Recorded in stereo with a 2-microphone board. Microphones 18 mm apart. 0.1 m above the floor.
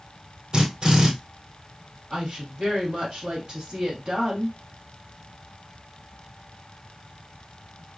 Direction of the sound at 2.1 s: 50° right (ahead or behind).